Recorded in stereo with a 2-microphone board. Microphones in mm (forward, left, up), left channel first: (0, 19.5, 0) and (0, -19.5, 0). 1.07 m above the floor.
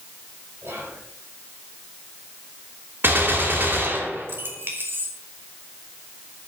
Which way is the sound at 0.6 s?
85° right.